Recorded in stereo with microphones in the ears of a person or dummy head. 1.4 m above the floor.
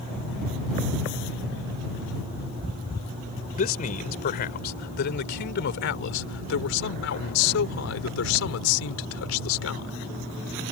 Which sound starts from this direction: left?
A man speaking, at 3.5 s.